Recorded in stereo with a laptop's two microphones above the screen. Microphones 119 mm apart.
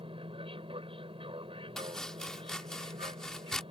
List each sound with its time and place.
0.0 s an aircraft: 45° right (ahead or behind)
1.8 s chopping: 5° left (ahead or behind)